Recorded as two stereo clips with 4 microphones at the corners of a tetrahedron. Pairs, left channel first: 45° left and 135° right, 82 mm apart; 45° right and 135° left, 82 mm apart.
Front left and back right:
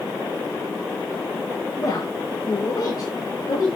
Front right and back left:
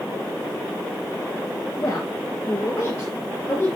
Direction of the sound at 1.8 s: 10° left.